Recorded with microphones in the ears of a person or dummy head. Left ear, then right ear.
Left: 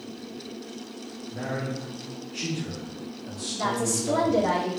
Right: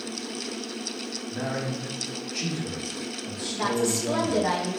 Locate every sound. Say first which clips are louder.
1.3 s a man speaking: even; 40° right (ahead or behind), 1.2 m; by 4.5 s 55° right (ahead or behind), 1.8 m
3.5 s a woman speaking: right 1 dB; 40° right (ahead or behind), 1.0 m